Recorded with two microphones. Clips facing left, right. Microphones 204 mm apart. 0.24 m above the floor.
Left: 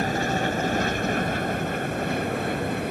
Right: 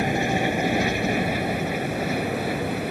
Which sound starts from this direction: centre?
An aircraft, at 0.0 s.